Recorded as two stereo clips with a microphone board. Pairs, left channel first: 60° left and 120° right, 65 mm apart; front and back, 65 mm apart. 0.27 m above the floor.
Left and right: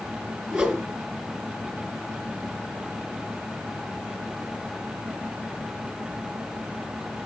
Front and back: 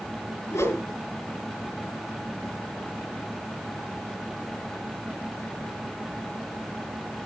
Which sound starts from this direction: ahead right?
A whoosh, at 0.5 s.